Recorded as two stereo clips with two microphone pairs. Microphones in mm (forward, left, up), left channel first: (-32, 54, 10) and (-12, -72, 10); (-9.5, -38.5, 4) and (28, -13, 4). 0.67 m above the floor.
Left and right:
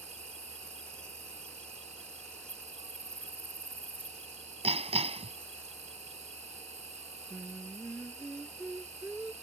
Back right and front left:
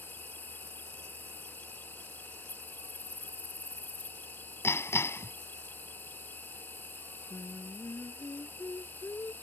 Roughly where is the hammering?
Behind right.